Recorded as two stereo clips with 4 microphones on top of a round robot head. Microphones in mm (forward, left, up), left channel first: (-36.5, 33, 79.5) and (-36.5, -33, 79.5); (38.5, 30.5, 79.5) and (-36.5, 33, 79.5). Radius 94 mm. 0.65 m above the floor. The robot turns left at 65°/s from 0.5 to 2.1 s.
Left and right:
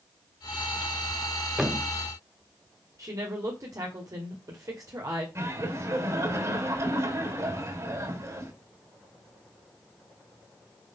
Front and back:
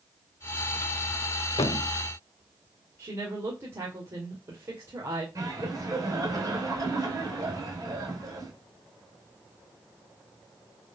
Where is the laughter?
135° right, 4 m.